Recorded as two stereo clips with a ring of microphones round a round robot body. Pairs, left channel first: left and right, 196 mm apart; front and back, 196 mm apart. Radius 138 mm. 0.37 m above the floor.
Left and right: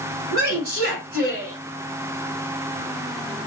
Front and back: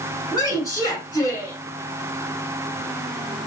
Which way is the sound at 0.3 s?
70° right.